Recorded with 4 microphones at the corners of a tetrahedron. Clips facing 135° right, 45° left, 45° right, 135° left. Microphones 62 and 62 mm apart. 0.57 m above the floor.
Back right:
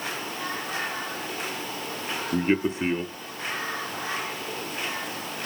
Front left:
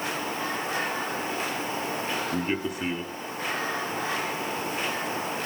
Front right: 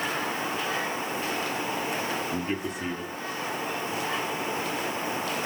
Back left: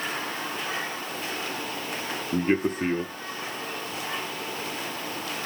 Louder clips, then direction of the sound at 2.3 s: Back right 4 dB, back left 6 dB; 170° left.